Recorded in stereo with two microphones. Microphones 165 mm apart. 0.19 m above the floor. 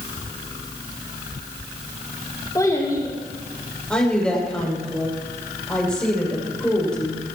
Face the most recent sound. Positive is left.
turn(degrees=5)  # may be behind; listen again after turning